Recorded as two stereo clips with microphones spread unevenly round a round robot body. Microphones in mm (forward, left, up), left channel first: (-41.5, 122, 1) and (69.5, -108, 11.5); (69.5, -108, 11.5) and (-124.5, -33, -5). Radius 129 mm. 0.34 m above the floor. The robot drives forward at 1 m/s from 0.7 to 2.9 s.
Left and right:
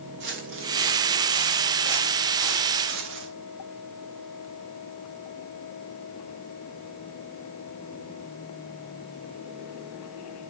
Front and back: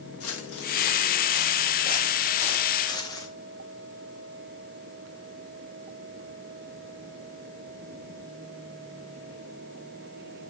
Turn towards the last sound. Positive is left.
turn(degrees=-90)